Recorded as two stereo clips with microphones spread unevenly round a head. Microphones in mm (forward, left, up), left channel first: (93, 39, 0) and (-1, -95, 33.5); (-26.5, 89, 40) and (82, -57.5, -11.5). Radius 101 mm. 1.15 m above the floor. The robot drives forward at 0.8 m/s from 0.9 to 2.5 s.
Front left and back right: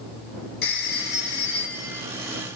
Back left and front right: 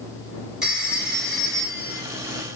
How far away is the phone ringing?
About 3.5 m.